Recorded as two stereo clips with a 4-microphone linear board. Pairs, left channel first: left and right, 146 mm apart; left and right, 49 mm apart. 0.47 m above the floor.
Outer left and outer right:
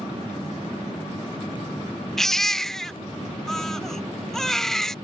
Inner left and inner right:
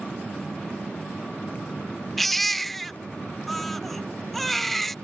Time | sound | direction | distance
2.2 | a baby crying | 5° left (ahead or behind) | ?